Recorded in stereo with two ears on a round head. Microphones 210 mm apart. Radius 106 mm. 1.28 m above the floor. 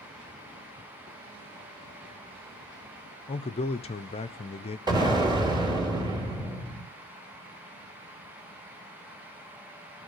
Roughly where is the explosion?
Centre.